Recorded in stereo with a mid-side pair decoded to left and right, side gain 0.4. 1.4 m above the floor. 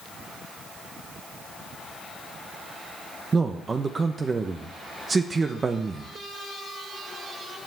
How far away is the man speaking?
About 0.9 m.